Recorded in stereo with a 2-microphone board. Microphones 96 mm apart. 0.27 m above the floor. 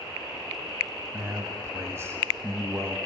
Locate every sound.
1.1 s a man speaking: 30° right (ahead or behind), 1.4 m